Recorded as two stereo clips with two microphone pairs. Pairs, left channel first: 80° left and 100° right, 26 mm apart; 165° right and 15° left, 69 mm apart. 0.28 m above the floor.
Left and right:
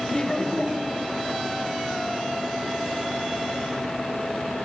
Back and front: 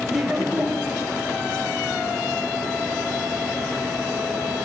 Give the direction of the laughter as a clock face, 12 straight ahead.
9 o'clock.